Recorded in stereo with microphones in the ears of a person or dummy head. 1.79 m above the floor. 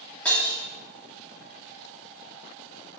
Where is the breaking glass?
10° left (ahead or behind), 2.5 m.